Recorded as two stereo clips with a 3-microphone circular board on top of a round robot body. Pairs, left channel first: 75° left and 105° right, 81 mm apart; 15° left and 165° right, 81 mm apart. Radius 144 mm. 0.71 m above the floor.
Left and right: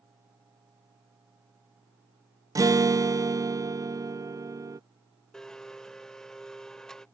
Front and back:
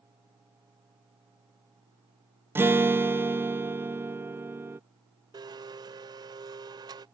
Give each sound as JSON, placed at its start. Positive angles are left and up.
{"t": 2.5, "sound": "a guitar", "azimuth_deg": -115}
{"t": 5.3, "sound": "a blender", "azimuth_deg": 160}